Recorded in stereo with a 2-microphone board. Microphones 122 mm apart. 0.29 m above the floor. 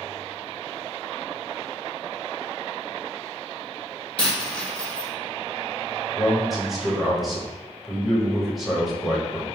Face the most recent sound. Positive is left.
turn(degrees=0)  # may be behind; listen again after turning